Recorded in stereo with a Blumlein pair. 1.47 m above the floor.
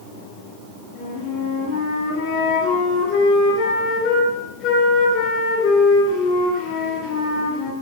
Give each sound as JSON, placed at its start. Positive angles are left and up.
{"t": 0.9, "sound": "a flute", "azimuth_deg": 45, "distance_m": 2.5}